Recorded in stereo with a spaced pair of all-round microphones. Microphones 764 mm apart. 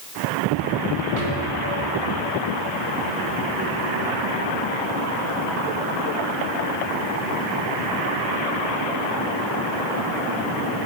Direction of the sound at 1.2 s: 50° right (ahead or behind).